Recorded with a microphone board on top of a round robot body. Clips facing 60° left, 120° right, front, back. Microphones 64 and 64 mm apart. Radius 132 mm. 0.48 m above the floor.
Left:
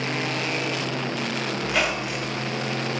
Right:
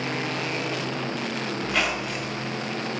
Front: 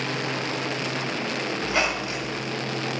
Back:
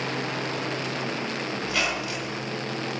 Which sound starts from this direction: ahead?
A squeak, at 1.6 s.